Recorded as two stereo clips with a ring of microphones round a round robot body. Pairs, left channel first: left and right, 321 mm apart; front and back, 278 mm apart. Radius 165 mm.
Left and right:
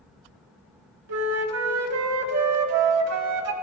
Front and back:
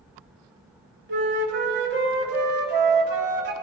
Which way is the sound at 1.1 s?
125° right.